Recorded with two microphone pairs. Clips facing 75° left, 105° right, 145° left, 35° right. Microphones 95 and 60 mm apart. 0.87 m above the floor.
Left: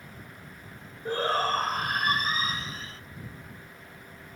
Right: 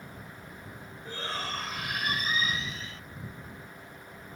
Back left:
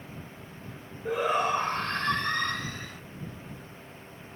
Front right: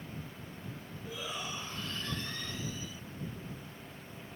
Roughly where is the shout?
Behind left.